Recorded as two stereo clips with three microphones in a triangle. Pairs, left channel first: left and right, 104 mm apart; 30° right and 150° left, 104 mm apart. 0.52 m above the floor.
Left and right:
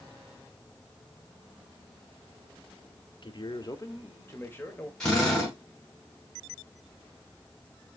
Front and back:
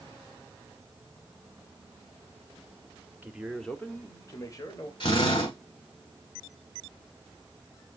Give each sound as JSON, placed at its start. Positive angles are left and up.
{"t": 3.2, "sound": "a man speaking", "azimuth_deg": 80, "distance_m": 1.0}
{"t": 5.0, "sound": "a drill", "azimuth_deg": 5, "distance_m": 5.0}